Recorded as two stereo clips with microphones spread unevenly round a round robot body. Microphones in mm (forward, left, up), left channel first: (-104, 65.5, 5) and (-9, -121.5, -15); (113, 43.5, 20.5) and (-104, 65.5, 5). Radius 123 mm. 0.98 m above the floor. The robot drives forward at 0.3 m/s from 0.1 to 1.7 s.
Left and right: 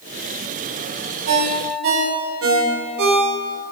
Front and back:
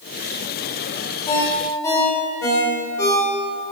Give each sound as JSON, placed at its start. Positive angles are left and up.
{"t": 1.3, "sound": "a ringtone", "azimuth_deg": -80, "distance_m": 2.0}